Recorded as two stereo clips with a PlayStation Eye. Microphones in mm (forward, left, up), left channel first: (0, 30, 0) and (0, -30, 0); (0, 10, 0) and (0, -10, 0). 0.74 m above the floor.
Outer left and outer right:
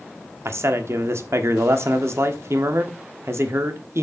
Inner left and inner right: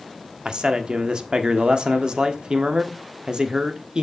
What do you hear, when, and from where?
0.5 s a man speaking: 50° right (ahead or behind), 1.2 m